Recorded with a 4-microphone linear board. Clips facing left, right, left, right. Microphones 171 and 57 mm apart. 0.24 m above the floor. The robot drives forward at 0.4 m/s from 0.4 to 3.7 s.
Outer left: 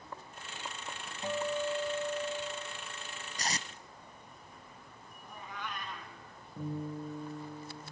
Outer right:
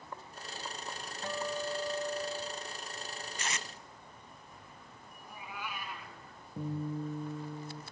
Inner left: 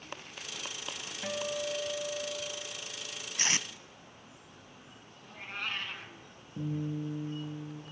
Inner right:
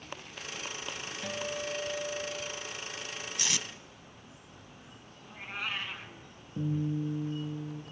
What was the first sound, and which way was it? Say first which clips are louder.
A guitar: outer left 3 dB, inner left 2 dB; 15° left (ahead or behind).